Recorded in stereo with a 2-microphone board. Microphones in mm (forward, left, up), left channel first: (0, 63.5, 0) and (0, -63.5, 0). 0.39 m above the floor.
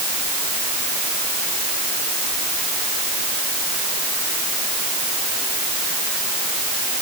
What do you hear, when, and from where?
Only background noise.